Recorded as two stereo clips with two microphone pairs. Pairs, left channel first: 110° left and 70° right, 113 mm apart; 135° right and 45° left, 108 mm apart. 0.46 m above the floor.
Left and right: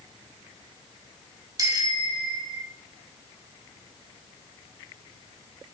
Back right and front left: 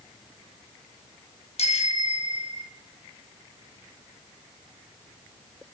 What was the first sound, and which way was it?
A bicycle bell, 125° right.